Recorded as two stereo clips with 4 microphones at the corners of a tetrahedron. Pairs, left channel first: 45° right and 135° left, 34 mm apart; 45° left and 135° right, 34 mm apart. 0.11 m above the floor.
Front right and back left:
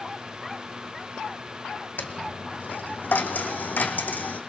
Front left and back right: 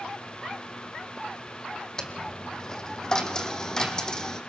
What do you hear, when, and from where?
2.0 s a dropped coin: 25° right, 0.9 m